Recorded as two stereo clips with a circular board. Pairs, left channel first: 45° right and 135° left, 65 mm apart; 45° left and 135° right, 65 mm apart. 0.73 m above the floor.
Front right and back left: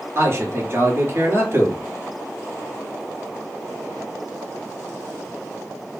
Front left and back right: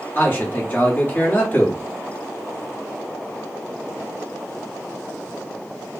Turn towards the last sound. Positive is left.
turn(degrees=105)